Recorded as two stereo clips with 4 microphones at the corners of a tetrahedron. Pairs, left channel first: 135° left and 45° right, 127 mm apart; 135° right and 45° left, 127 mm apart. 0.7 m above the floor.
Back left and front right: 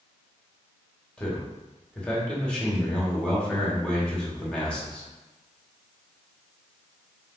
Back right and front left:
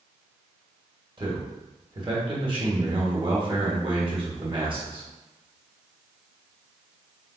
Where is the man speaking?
55° left, 1.4 m.